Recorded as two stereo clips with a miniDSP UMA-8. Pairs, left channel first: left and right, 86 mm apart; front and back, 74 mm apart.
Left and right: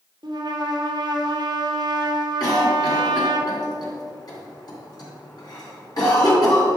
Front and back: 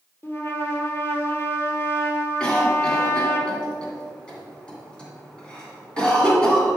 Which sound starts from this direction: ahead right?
A trumpet, at 0.2 s.